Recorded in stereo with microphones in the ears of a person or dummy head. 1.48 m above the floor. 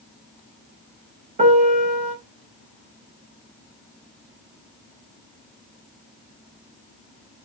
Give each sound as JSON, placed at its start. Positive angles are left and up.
{"t": 1.4, "sound": "a piano", "side_deg": -35, "distance_m": 1.1}